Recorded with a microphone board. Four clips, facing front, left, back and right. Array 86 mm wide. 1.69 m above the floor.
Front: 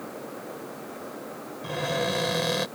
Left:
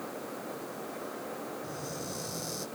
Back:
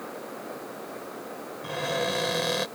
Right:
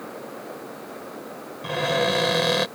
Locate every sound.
1.6 s a cupboard door: 90° right